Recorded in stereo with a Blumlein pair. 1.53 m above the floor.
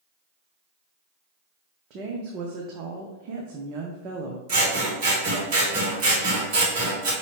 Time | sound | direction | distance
1.9 | a woman speaking | 35° right | 0.6 m
4.5 | scissors | 45° right | 1.6 m